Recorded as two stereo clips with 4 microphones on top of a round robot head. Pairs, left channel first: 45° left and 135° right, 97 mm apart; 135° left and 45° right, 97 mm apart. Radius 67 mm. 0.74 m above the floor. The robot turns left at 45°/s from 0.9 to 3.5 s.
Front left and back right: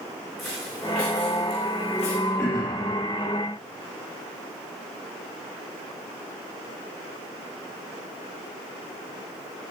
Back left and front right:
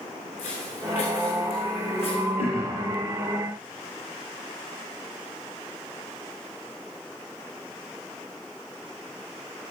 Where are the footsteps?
135° left, 5 m; by 2.2 s 55° left, 3.5 m.